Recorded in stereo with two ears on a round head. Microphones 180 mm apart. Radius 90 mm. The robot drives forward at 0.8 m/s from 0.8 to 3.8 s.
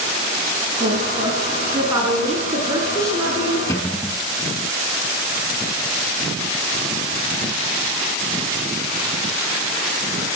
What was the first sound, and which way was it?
A woman speaking, 20° right (ahead or behind).